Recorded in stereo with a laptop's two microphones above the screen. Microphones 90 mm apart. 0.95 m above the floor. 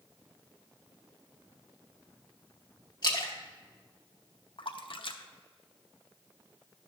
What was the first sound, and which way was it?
A splash, 50° left (ahead or behind).